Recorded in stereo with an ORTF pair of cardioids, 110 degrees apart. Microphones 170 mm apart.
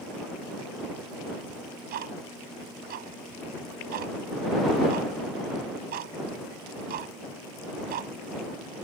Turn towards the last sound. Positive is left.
turn(degrees=-65)